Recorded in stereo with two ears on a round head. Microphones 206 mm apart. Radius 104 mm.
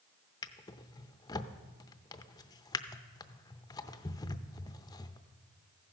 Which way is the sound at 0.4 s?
15° left (ahead or behind).